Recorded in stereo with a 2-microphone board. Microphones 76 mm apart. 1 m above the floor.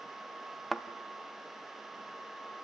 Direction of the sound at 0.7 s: Centre (ahead or behind).